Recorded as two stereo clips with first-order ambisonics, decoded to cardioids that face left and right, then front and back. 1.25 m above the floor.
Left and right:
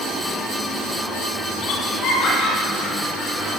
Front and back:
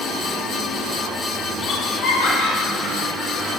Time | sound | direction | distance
1.6 | laughter | 65° left | 1.2 m